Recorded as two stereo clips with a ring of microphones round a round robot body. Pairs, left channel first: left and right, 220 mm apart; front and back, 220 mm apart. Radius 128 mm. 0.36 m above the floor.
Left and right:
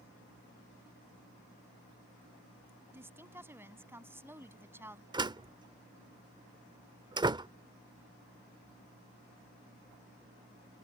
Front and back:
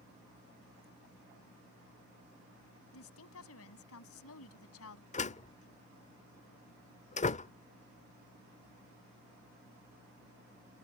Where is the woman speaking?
10° right.